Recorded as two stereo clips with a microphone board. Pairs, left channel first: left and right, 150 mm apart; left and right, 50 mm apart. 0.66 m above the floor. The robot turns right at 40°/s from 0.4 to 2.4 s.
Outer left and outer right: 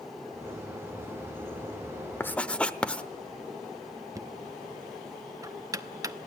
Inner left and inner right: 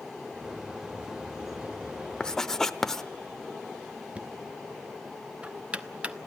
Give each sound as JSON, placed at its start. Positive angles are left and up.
{"t": 2.2, "sound": "writing", "side_deg": 15, "distance_m": 0.7}
{"t": 4.2, "sound": "knocking", "side_deg": -25, "distance_m": 0.8}